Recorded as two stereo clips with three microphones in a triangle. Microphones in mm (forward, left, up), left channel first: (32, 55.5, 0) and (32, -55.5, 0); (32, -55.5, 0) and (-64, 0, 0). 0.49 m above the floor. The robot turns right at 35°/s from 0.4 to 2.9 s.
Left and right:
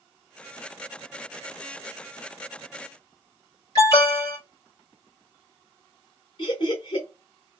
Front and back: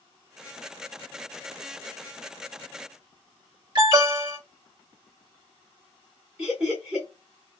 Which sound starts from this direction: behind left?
An alarm, at 3.8 s.